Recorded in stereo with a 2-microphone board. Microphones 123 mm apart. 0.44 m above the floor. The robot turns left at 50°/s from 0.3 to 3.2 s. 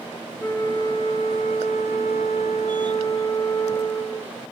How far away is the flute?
About 2.5 m.